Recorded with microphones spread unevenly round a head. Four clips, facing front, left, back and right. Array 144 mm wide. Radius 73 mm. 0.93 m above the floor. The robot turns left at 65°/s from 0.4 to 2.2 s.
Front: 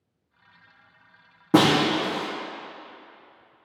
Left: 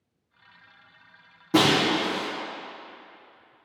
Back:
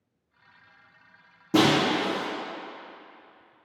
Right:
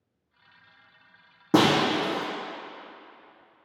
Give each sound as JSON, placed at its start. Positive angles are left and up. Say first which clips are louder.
{"t": 1.5, "sound": "breaking glass", "louder": "even, front 2 dB", "azimuth_deg": -45, "distance_m": 1.6}